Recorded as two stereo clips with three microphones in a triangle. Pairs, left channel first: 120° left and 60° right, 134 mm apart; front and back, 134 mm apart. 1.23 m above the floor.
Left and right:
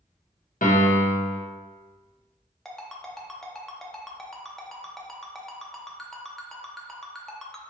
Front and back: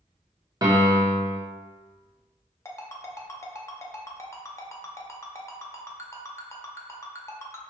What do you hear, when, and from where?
0.6 s a piano: 115° left, 0.9 m
2.6 s a ringtone: 35° left, 0.7 m